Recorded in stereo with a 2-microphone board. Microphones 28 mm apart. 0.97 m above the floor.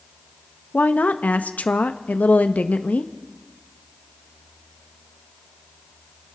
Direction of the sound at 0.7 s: 70° left (ahead or behind).